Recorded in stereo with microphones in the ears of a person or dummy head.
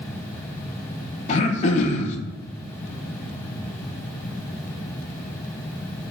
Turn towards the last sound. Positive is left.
turn(degrees=35)  # may be behind; listen again after turning